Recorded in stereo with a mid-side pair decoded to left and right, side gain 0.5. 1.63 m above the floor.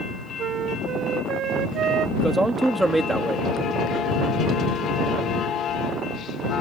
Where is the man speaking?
15° right.